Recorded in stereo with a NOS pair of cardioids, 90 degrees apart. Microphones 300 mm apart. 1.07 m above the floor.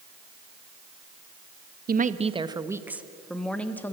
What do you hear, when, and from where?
1.9 s a woman speaking: 30° right, 0.9 m; by 3.9 s 5° left, 1.7 m